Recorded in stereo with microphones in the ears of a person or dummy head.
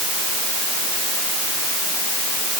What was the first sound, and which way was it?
Only background noise.